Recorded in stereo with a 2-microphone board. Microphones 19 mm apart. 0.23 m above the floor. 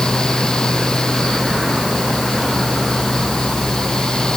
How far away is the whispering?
No whispering in this recording.